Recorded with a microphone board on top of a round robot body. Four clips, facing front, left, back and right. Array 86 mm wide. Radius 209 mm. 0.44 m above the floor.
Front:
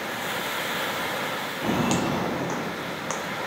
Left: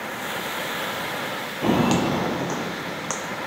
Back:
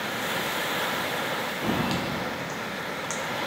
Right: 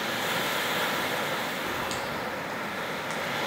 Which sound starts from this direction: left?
Footsteps, at 1.6 s.